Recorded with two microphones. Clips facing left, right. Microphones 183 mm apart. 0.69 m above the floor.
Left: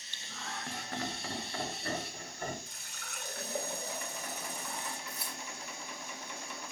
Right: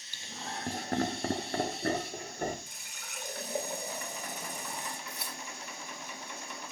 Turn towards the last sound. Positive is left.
turn(degrees=-70)  # may be behind; listen again after turning